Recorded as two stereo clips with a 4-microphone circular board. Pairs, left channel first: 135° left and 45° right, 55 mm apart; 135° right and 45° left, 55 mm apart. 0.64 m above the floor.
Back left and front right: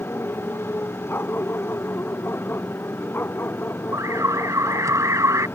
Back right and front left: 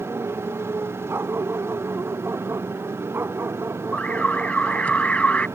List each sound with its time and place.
0.0 s a motorcycle: 85° left
1.1 s a dog barking: 90° left
3.9 s an alarm: 70° right